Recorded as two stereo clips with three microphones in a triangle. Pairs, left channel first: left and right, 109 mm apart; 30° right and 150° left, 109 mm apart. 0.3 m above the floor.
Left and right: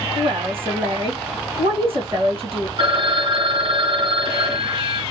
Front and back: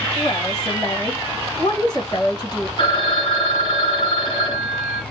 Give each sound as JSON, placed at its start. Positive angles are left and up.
{"t": 0.1, "sound": "a woman speaking", "azimuth_deg": -70, "distance_m": 2.5}
{"t": 2.8, "sound": "a phone ringing", "azimuth_deg": -60, "distance_m": 1.9}